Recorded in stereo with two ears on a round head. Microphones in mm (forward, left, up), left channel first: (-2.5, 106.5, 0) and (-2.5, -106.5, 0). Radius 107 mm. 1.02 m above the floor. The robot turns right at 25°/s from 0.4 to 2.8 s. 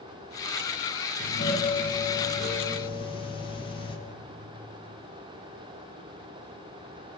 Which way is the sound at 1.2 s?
110° left.